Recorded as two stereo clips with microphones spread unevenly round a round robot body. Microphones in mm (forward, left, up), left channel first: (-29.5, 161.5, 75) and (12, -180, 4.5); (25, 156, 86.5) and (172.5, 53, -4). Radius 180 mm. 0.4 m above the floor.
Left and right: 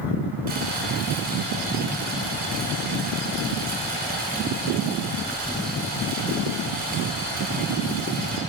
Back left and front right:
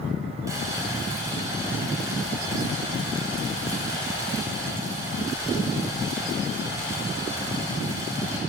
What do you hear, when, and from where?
0.5 s boiling: 50° right, 1.7 m